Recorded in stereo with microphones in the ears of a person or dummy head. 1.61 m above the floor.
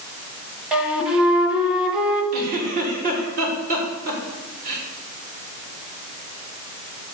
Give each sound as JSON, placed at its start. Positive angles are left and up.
{"t": 0.7, "sound": "a flute", "side_deg": -5, "distance_m": 1.4}
{"t": 2.3, "sound": "a giggle", "side_deg": -50, "distance_m": 4.0}